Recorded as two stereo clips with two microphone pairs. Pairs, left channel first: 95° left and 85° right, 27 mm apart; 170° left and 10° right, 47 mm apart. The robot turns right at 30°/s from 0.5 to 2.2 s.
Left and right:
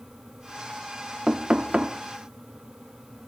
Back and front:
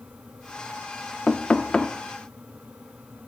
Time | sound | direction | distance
1.3 | knocking | 135° right | 0.6 m